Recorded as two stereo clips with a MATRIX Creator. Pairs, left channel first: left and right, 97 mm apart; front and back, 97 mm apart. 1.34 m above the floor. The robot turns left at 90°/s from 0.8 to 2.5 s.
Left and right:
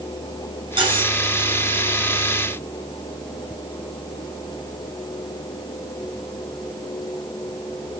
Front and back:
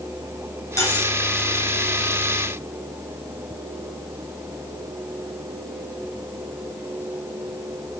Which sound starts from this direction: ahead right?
Cutlery clinking, at 0.8 s.